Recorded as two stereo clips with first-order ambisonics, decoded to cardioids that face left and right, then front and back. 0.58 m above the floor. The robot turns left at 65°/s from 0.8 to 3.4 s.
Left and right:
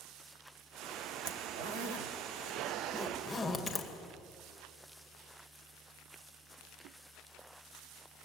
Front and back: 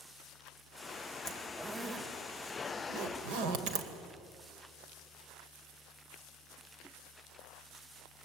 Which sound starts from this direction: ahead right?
A zipper, at 1.2 s.